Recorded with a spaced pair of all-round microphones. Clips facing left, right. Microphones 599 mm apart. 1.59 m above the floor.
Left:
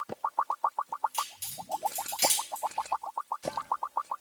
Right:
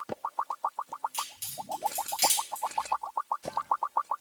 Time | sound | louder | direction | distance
1.1 | a crack | left 1 dB | 45° right (ahead or behind) | 1.2 m